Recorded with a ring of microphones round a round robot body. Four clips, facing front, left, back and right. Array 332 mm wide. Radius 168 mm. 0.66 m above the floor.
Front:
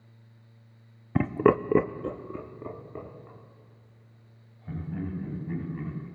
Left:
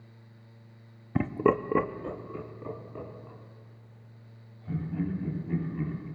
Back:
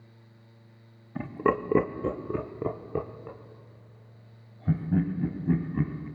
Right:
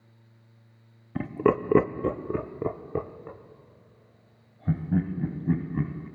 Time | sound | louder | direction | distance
1.1 | laughter | right 1 dB, front 4 dB | 15° left | 0.7 m